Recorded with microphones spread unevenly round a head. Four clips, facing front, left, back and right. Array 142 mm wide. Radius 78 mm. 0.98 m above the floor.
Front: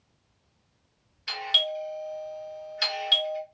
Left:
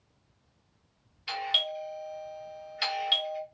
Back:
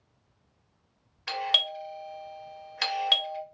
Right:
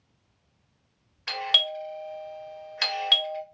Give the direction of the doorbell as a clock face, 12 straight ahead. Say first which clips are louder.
Right 2 dB, even; 5 o'clock.